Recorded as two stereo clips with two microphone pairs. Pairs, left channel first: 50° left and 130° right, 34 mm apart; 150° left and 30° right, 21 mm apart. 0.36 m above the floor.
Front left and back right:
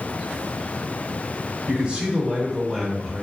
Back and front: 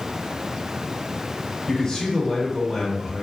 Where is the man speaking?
145° right, 1.2 m; by 3.2 s 50° right, 1.0 m.